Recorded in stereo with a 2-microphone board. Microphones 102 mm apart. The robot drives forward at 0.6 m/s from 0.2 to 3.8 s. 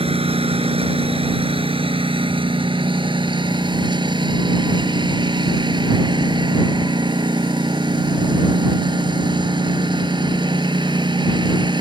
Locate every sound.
0.0 s a lawn mower: 70° right (ahead or behind); by 11.8 s 50° right (ahead or behind)